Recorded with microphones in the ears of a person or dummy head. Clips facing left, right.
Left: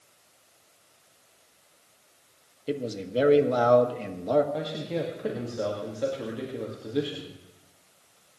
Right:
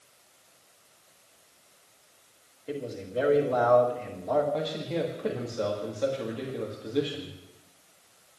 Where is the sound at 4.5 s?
5° left (ahead or behind), 2.0 m.